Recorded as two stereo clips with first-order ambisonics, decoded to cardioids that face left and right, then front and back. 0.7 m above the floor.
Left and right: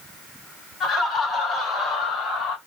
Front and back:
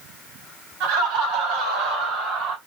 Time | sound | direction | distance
0.8 | laughter | 155° left | 4 m